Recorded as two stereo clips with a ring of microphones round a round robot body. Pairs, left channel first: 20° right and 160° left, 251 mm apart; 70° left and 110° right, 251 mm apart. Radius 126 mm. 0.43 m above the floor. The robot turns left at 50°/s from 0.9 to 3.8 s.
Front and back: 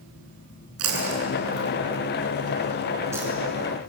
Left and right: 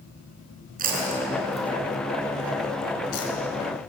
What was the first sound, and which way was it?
Chewing, 170° right.